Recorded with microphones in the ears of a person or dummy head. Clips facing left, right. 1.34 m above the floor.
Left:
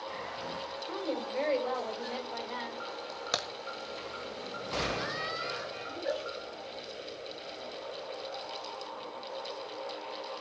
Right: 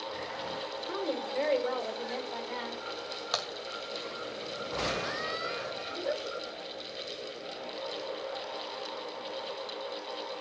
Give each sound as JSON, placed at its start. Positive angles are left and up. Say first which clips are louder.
{"t": 0.9, "sound": "a woman speaking", "louder": "right 1 dB", "side_deg": -15, "distance_m": 3.5}
{"t": 3.3, "sound": "a crack", "louder": "left 1 dB", "side_deg": 25, "distance_m": 1.3}
{"t": 5.9, "sound": "a giggle", "louder": "even", "side_deg": 5, "distance_m": 9.0}